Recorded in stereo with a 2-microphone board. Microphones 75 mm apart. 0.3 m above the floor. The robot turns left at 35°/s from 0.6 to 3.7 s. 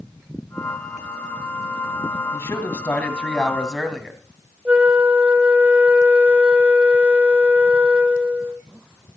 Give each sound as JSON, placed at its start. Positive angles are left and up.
{"t": 2.3, "sound": "a man speaking", "azimuth_deg": 45, "distance_m": 2.5}
{"t": 4.7, "sound": "a flute", "side_deg": -15, "distance_m": 1.3}